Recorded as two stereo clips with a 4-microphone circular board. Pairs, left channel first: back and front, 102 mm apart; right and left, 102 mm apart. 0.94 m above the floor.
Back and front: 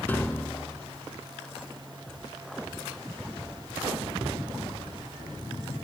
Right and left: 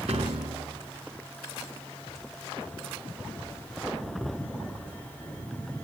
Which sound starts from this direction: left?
A piano, at 0.1 s.